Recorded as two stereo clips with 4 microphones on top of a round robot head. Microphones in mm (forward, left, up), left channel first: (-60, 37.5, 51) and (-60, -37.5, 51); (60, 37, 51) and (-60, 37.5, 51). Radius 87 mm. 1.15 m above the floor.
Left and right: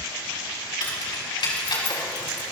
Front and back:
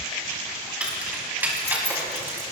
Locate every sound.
0.8 s keys jangling: 100° left, 5.5 m; by 2.4 s 110° left, 4.5 m